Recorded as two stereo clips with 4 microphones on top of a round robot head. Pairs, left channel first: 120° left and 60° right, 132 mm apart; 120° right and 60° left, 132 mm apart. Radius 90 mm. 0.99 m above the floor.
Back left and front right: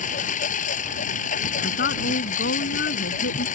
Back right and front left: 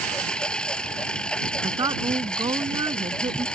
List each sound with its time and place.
0.0 s a lawn mower: 155° left
1.6 s a woman speaking: 120° left